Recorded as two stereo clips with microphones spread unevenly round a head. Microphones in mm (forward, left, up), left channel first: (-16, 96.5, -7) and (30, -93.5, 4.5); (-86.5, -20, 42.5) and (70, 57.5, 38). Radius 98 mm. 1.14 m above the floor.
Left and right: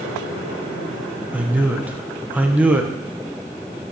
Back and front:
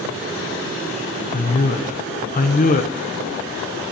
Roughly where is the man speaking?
Behind.